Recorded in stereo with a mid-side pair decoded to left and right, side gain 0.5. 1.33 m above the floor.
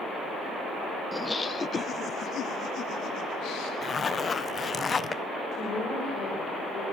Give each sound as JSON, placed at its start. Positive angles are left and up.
{"t": 1.1, "sound": "laughter", "azimuth_deg": 5, "distance_m": 0.5}
{"t": 3.8, "sound": "a zipper", "azimuth_deg": 35, "distance_m": 0.6}
{"t": 5.5, "sound": "a woman speaking", "azimuth_deg": 60, "distance_m": 6.0}